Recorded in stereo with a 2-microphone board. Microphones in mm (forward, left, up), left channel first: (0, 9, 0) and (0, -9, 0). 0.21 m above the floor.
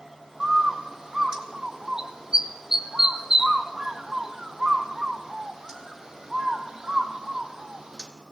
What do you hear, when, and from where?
0.4 s a bird: 35° right (ahead or behind), 1.7 m